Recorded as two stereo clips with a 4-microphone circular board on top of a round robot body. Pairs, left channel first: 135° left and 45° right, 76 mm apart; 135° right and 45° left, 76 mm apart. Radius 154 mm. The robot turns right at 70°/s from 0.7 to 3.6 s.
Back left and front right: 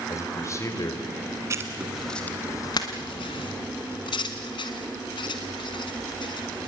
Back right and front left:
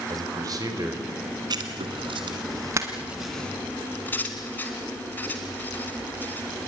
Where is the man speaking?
85° left, 4.5 m; by 1.0 s 110° left, 4.5 m.